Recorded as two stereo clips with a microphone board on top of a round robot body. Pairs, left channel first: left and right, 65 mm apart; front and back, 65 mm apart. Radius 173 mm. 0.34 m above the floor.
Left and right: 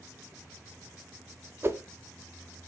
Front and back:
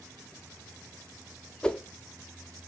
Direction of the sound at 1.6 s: 70° right.